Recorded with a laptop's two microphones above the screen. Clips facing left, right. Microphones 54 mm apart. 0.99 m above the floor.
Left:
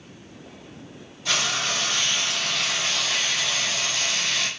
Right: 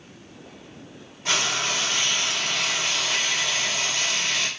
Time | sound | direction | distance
1.2 | frying | 45° right (ahead or behind) | 1.9 m